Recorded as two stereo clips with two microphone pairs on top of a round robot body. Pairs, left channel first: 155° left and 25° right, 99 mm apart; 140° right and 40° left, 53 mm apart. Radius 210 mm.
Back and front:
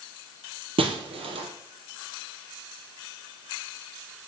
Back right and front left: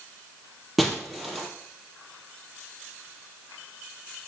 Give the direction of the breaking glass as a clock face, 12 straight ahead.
2 o'clock.